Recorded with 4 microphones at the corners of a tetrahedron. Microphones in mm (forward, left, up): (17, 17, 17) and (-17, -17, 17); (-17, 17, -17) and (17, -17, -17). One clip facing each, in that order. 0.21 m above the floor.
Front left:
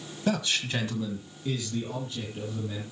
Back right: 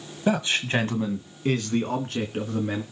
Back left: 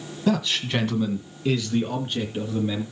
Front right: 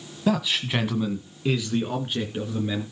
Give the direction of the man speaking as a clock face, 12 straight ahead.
4 o'clock.